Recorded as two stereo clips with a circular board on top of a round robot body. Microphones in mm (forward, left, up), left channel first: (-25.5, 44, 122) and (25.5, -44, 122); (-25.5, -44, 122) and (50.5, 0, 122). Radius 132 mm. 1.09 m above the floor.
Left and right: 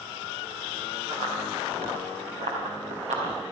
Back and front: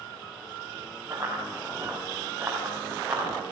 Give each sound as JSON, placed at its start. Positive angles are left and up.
{"t": 1.1, "sound": "running footsteps", "azimuth_deg": -40, "distance_m": 6.5}